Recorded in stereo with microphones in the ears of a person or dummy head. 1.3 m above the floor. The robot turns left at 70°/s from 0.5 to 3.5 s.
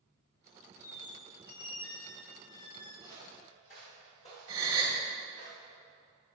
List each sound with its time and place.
0.8 s a squeak: 20° right (ahead or behind), 1.1 m; by 2.9 s 25° left (ahead or behind), 1.1 m
3.0 s footsteps: 15° left (ahead or behind), 2 m; by 5.5 s 40° left (ahead or behind), 5 m
4.5 s a gasp: 20° right (ahead or behind), 1.7 m